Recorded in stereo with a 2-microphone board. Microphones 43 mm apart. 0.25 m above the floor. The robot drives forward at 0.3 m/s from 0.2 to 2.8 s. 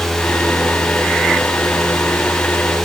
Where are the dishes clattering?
I don't hear dishes clattering.